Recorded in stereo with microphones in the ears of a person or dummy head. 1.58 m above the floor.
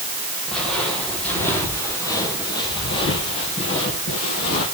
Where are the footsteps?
Centre (ahead or behind), 3.5 m; by 4.7 s 55° left (ahead or behind), 3 m.